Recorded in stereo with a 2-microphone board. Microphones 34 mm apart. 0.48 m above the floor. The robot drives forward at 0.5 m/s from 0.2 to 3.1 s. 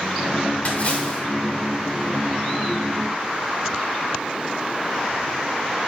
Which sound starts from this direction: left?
A splash, at 0.7 s.